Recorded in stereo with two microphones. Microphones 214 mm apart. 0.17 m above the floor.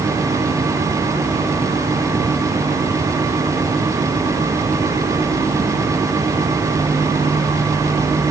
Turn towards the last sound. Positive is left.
No sound to turn to.